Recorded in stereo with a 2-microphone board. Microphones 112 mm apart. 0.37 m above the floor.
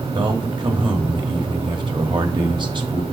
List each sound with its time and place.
0.1 s a man speaking: 45° right (ahead or behind), 1.5 m